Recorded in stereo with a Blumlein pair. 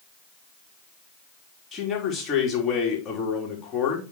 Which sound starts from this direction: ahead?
A man speaking, at 1.7 s.